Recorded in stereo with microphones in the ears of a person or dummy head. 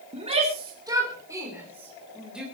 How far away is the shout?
About 3 m.